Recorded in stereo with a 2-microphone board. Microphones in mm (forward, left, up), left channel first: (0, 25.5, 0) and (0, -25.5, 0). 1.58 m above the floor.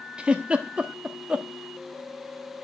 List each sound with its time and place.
0.2 s a giggle: 20° right (ahead or behind), 1.1 m